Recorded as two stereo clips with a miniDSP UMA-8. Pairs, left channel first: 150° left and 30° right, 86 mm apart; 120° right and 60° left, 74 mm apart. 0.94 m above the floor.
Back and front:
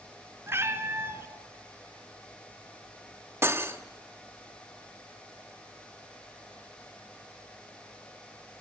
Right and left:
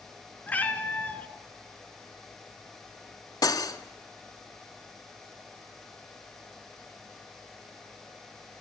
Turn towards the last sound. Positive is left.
turn(degrees=-90)